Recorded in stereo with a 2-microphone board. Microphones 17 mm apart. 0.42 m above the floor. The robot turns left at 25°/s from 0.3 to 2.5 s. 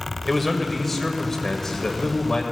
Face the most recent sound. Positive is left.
turn(degrees=115)